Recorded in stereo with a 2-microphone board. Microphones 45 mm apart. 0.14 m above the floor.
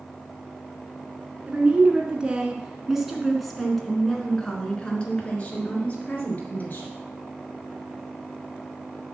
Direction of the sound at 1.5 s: 30° right (ahead or behind).